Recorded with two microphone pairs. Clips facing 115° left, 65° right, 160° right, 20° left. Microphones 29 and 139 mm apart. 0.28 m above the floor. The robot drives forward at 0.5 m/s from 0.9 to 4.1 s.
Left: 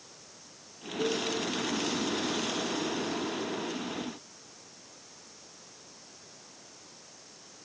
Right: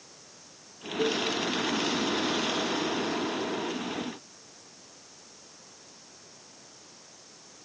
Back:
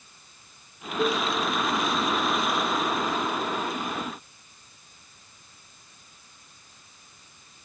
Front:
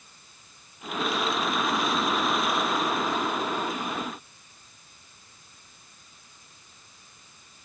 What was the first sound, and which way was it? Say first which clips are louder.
A cowbell: right 3 dB, back 4 dB; 120° right.